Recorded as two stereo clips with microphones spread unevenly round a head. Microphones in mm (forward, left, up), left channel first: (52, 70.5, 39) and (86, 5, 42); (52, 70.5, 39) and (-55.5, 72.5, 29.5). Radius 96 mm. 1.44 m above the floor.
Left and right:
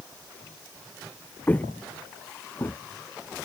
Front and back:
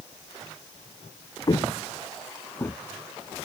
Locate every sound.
1.5 s footsteps: 50° left; by 2.8 s 65° left